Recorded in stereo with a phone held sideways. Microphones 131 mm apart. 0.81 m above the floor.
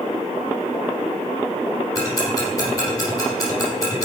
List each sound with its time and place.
1.9 s ticking: 25° left (ahead or behind), 4.5 m